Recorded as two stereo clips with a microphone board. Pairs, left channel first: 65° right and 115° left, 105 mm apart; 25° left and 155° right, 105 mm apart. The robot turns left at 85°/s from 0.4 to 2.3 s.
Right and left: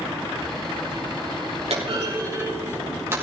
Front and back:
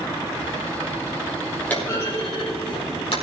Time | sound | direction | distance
1.7 | a clunk | 100° left | 5 m